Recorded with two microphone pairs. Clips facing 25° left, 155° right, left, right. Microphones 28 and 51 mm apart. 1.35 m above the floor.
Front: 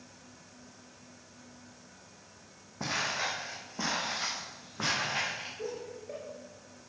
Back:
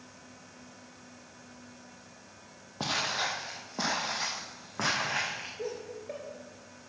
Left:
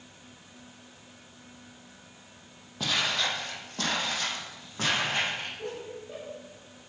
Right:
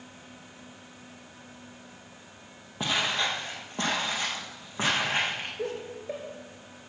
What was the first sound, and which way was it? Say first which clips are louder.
Footsteps: back 2 dB, right 1 dB; 155° right.